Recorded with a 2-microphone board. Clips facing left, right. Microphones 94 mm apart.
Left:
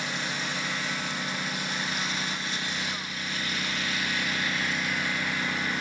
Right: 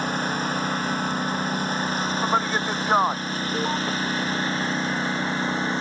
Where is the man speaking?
70° right (ahead or behind).